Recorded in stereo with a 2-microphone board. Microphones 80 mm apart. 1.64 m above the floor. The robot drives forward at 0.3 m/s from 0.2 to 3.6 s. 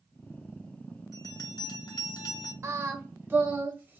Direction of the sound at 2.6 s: 35° right (ahead or behind).